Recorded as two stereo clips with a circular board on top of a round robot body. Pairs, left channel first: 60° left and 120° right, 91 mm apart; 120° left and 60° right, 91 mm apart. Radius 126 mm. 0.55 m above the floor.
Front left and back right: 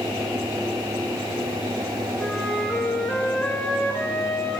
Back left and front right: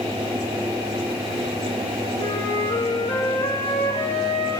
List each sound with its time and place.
2.2 s a flute: 140° left, 2.5 m